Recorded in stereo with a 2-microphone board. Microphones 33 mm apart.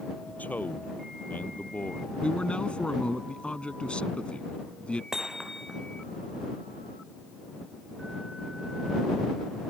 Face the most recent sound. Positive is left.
turn(degrees=-15)  # may be behind; listen again after turning